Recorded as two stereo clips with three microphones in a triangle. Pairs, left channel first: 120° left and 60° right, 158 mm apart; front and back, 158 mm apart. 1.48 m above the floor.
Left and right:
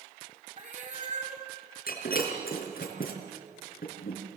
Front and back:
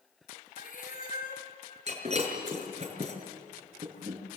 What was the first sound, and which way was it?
A cat meowing, 30° right.